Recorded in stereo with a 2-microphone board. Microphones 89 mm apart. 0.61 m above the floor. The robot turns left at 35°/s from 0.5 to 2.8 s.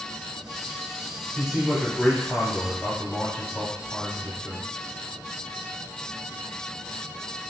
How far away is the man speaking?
About 1.4 m.